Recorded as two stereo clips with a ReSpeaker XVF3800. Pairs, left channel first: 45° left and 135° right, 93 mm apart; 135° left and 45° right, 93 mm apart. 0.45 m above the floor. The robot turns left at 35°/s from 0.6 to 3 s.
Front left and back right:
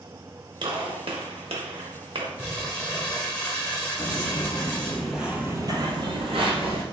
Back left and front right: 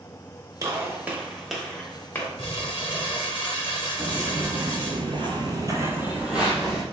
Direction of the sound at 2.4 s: 140° left.